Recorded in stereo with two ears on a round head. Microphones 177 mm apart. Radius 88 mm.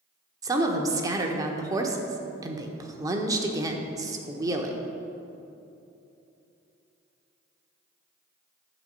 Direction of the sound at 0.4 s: 20° right (ahead or behind).